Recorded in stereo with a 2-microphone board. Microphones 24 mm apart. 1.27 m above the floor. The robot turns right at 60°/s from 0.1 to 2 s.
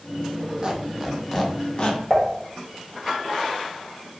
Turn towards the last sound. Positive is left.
turn(degrees=20)  # may be behind; listen again after turning